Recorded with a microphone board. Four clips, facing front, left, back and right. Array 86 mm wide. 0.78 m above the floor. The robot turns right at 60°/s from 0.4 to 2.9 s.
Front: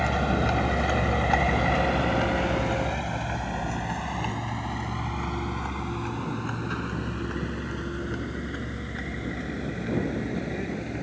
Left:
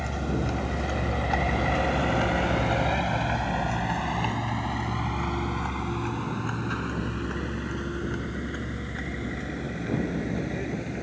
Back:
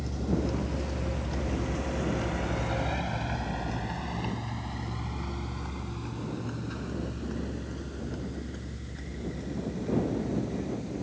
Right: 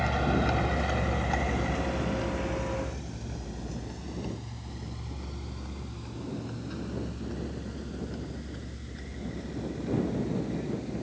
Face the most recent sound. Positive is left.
turn(degrees=45)